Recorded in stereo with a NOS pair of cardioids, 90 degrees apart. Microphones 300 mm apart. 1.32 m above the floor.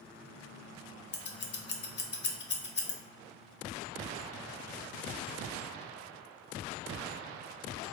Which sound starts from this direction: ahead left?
Scissors, at 1.1 s.